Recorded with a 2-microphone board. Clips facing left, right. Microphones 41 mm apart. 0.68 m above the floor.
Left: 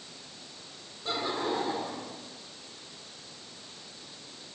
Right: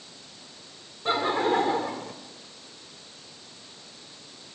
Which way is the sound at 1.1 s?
45° right (ahead or behind).